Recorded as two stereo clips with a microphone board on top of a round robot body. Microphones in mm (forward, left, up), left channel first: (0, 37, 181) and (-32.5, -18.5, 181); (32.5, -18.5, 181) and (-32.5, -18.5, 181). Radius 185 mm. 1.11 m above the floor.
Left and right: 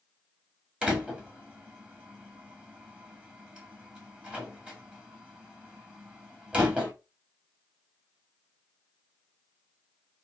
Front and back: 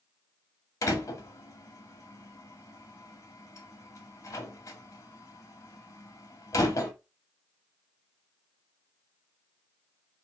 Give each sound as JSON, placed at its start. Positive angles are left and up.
{"t": 0.8, "sound": "a door slam", "azimuth_deg": -45, "distance_m": 1.9}